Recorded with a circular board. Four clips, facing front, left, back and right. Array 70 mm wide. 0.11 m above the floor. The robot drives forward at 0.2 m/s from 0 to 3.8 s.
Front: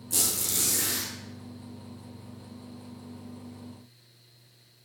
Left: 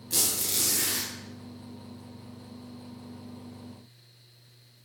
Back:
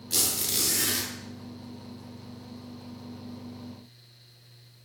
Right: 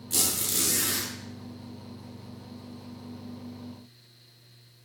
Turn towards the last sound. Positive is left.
turn(degrees=175)